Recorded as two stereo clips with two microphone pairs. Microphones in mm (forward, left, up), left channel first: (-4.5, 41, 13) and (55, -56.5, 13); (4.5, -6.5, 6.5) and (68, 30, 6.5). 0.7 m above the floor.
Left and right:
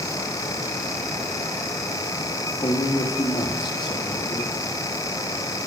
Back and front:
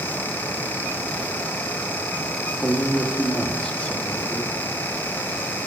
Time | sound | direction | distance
2.6 | a man speaking | 135° left | 1.1 m